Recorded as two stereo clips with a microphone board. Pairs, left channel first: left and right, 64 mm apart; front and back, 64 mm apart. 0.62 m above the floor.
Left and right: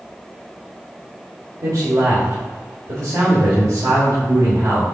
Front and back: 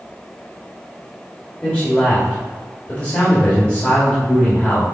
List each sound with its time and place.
1.6 s a man speaking: 70° right, 1.9 m